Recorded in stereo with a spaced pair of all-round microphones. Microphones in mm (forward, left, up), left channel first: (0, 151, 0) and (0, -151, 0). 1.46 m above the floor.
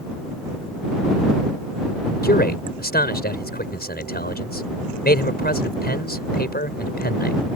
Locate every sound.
2.2 s a man speaking: 30° left (ahead or behind)